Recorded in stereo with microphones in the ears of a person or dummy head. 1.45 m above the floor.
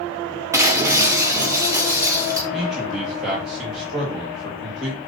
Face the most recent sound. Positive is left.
turn(degrees=0)  # may be behind; listen again after turning